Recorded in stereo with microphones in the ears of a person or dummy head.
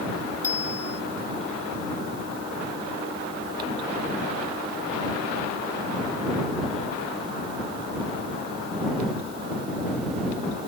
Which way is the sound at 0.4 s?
15° left (ahead or behind).